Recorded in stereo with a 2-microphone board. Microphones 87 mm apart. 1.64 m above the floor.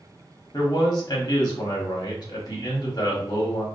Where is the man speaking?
50° left (ahead or behind), 1.1 m.